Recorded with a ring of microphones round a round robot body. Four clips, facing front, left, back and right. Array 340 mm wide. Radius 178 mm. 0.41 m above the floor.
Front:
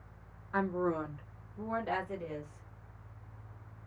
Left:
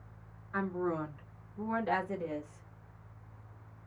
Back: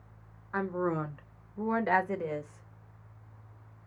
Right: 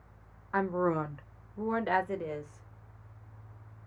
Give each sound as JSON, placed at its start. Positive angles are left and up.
{"t": 0.5, "sound": "a woman speaking", "azimuth_deg": -95, "distance_m": 1.4}